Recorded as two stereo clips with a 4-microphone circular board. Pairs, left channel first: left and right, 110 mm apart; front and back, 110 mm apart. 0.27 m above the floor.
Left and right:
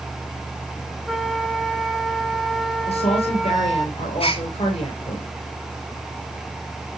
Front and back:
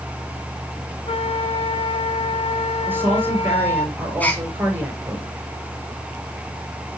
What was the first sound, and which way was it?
A flute, 5° right.